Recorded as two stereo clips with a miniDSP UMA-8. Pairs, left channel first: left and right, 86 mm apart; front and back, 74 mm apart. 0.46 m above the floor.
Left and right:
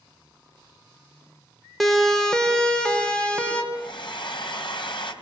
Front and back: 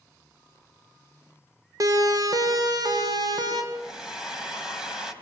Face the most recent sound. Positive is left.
turn(degrees=100)